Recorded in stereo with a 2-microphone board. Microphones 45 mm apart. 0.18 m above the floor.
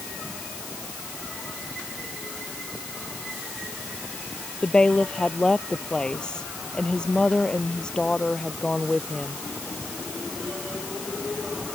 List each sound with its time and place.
4.6 s a woman speaking: 15° left (ahead or behind)